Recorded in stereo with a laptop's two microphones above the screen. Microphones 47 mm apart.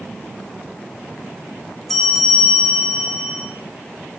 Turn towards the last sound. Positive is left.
turn(degrees=5)  # may be behind; listen again after turning